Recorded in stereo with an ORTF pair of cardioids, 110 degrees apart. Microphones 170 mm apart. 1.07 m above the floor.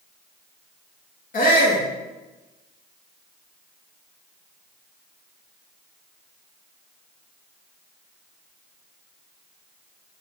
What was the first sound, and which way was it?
A shout, 55° left.